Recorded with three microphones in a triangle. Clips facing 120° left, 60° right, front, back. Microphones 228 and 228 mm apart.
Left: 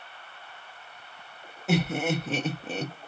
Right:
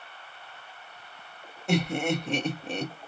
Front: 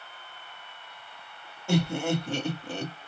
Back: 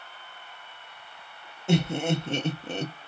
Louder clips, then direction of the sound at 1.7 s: Even, back 1 dB; 160° right.